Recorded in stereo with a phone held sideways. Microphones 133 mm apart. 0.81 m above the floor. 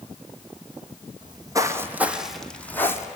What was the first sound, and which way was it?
Footsteps, 35° right (ahead or behind).